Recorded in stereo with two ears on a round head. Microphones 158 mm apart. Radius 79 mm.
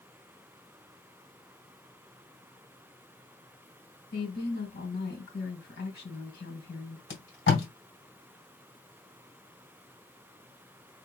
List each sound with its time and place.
4.1 s a woman speaking: 70° left (ahead or behind), 3 m
7.1 s tape being pulled: 75° left (ahead or behind), 2.5 m